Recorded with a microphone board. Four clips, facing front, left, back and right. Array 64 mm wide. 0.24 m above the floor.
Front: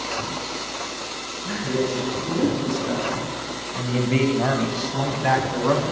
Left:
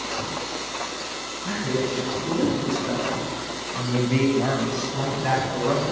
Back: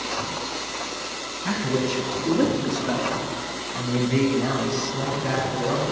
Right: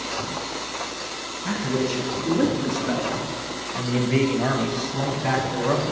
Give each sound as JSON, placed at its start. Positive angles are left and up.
{"t": 1.4, "sound": "a man speaking", "azimuth_deg": -160, "distance_m": 1.7}